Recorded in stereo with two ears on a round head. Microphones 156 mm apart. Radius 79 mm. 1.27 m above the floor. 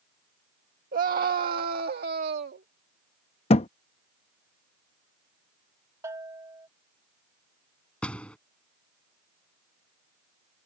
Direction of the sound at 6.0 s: 20° right (ahead or behind).